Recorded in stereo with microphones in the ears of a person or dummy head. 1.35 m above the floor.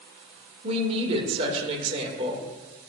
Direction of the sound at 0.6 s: 30° right (ahead or behind).